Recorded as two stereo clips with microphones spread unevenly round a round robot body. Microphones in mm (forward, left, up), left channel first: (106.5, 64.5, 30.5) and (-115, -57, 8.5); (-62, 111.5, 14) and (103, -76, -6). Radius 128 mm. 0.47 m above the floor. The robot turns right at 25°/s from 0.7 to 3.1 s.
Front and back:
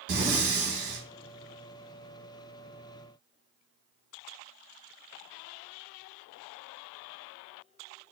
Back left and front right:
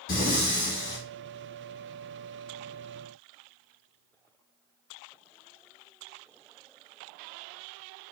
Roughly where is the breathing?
Behind.